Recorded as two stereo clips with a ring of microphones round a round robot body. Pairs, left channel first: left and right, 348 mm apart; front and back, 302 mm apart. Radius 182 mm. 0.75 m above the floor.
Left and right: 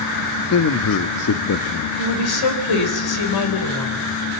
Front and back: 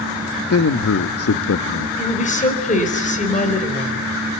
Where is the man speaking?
40° left, 1.0 m.